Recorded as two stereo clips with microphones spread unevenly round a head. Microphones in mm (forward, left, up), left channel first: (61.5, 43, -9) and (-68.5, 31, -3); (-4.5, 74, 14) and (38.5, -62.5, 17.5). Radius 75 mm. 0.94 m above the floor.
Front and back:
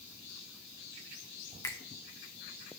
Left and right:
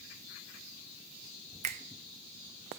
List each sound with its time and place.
1.6 s a finger snap: 55° right, 0.6 m